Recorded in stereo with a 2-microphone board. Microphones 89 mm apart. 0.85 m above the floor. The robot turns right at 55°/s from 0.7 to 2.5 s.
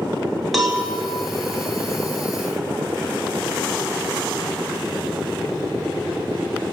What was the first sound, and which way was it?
A cowbell, centre (ahead or behind).